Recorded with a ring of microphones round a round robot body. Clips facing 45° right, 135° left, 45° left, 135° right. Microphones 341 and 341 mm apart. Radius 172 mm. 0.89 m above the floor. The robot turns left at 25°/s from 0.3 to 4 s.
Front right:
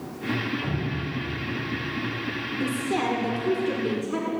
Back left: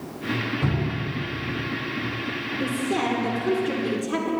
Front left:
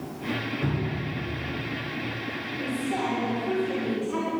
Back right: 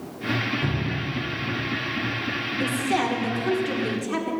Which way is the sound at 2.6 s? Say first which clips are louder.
Back left 1 dB, back right 3 dB; 120° right.